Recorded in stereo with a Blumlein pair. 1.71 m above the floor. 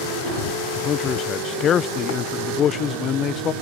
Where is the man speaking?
25° left.